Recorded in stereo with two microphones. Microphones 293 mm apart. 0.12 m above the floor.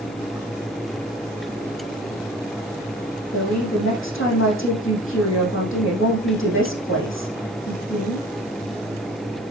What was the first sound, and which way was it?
A woman speaking, 50° left (ahead or behind).